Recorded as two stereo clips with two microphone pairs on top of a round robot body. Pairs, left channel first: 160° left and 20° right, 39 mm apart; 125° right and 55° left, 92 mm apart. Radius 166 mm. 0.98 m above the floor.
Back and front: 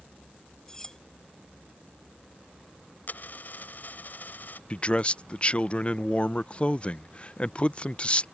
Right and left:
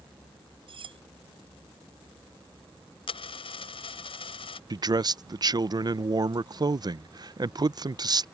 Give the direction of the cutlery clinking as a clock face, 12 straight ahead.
9 o'clock.